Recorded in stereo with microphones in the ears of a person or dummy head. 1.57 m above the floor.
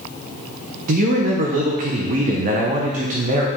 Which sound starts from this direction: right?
A man speaking, at 0.9 s.